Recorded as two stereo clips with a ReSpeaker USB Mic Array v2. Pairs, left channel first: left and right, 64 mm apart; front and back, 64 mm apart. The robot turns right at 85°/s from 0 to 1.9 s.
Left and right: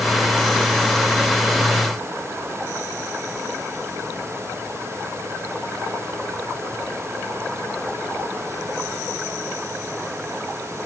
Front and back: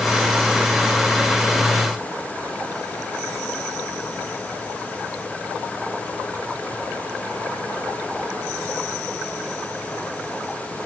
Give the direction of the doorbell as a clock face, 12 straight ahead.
I don't hear a doorbell.